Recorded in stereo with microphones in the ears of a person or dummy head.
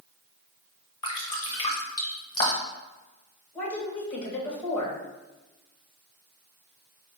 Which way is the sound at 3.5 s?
15° left (ahead or behind).